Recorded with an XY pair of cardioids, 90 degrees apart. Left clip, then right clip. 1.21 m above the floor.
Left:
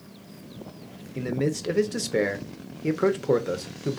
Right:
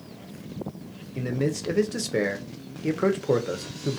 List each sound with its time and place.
1.1 s a man speaking: 10° left, 0.6 m